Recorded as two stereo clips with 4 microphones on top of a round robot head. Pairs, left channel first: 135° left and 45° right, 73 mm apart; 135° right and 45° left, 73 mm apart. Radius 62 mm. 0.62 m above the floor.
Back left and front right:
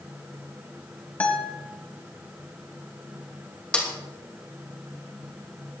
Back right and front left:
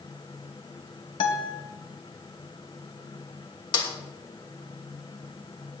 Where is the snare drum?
150° right, 2.5 m.